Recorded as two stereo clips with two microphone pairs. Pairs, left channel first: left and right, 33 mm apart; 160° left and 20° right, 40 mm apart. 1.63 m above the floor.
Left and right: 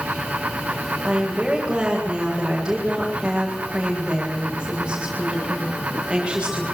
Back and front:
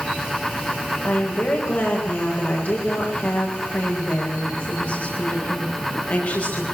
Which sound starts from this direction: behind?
A woman speaking, at 1.0 s.